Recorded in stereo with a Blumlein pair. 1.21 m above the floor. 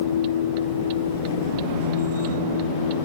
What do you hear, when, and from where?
0.0 s a machine running: 60° left